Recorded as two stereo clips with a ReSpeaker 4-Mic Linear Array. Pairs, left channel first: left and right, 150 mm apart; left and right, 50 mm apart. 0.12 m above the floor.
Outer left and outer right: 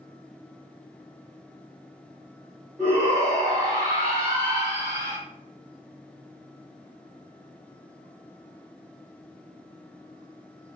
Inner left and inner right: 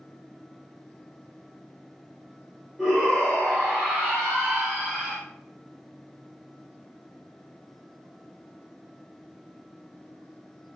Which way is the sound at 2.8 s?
20° right (ahead or behind).